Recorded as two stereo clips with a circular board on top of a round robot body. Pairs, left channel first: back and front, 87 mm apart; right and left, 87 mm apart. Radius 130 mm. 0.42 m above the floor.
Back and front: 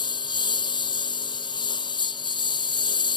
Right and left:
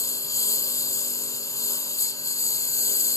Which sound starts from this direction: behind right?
A lawn mower, at 0.0 s.